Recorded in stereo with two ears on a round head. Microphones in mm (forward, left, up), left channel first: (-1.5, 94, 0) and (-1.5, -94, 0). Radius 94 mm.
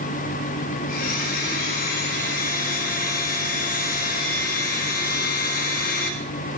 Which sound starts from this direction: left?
A blender, at 0.9 s.